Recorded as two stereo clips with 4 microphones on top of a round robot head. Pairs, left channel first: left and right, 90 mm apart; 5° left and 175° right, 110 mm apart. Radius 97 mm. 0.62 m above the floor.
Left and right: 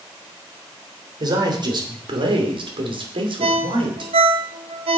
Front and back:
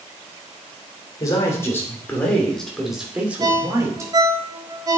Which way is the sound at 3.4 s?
110° right.